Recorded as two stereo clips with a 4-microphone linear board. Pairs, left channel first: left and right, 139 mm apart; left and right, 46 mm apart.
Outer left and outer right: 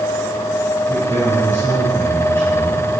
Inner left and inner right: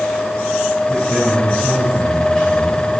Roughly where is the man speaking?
Centre.